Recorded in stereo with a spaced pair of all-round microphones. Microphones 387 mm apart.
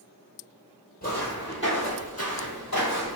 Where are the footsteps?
20° left (ahead or behind), 1.7 m; by 3.2 s 50° left (ahead or behind), 1.8 m.